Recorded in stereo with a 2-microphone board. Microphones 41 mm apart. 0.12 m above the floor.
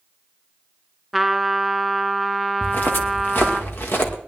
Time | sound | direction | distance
1.1 | a trumpet | centre (ahead or behind) | 0.8 m
2.6 | footsteps | 50° left (ahead or behind) | 1.9 m